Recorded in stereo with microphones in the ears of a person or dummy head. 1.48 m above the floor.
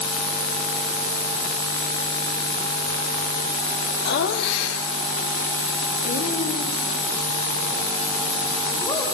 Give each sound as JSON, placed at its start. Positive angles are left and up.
{"t": 4.0, "sound": "laughter", "side_deg": 65, "distance_m": 2.5}